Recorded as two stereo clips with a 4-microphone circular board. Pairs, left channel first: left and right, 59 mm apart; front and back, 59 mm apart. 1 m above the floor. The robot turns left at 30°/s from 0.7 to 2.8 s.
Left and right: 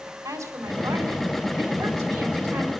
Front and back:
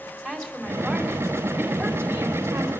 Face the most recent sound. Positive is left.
turn(degrees=-145)